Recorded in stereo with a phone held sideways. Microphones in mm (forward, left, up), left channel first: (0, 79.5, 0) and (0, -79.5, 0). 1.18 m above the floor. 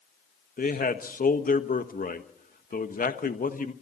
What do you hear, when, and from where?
0.6 s a man speaking: 60° left (ahead or behind), 1.3 m